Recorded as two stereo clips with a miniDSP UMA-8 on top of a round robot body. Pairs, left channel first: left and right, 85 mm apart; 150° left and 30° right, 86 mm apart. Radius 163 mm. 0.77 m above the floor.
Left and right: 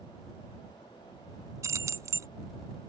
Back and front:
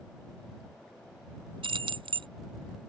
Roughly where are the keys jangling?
Ahead right.